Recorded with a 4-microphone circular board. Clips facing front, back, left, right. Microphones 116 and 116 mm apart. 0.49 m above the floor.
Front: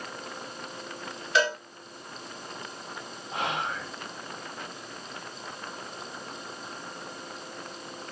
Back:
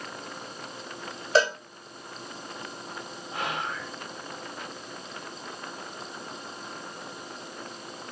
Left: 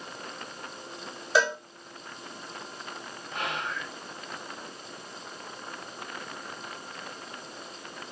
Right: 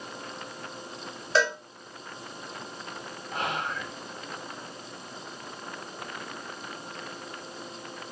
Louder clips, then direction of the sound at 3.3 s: Front 2 dB, right 2 dB; 55° right.